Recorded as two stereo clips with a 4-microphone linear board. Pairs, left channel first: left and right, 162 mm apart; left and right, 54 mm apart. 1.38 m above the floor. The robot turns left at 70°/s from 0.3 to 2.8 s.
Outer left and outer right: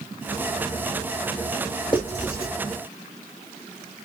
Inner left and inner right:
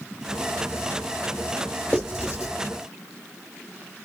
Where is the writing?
30° left (ahead or behind), 1.2 m; by 2.5 s 70° left (ahead or behind), 1.2 m.